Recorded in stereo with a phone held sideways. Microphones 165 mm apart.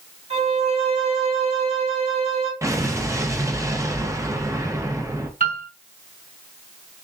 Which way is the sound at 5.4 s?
60° right (ahead or behind).